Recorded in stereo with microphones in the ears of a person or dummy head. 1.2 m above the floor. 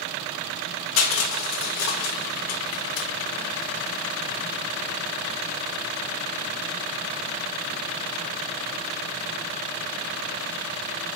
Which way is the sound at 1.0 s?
80° left.